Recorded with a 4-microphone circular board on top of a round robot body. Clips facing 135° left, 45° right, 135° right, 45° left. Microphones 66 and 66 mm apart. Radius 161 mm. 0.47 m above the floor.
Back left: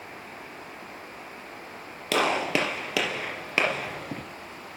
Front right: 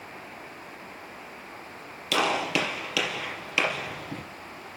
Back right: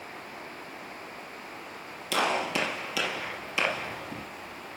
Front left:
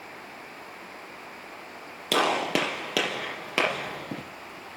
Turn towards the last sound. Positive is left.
turn(degrees=80)